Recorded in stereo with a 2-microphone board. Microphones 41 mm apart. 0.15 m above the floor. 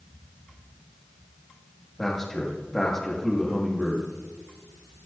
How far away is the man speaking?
About 6.5 m.